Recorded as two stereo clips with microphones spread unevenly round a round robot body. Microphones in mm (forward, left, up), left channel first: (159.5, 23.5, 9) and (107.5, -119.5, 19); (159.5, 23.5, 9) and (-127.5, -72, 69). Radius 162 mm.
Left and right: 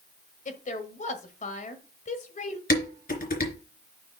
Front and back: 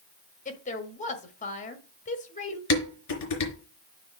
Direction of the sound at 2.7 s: 45° left.